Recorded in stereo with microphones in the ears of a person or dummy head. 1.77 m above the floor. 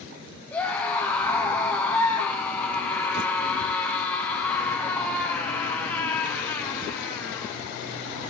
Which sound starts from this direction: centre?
A scream, at 0.5 s.